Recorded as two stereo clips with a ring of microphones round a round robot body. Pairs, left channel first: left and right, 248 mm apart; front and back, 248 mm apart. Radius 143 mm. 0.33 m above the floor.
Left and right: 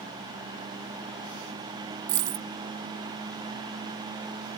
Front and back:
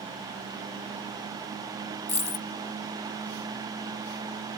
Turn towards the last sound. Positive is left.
turn(degrees=-65)